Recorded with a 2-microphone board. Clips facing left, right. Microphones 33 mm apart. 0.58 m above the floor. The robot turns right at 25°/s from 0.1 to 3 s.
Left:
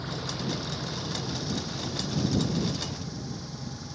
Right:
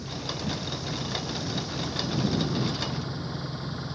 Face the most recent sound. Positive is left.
turn(degrees=-145)